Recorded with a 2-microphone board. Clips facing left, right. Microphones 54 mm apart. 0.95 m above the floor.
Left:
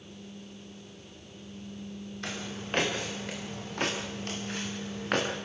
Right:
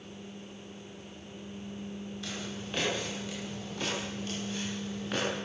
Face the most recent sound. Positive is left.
turn(degrees=60)  # may be behind; listen again after turning